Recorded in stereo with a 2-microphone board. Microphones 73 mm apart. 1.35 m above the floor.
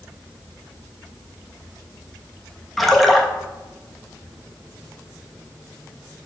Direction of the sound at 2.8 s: Centre (ahead or behind).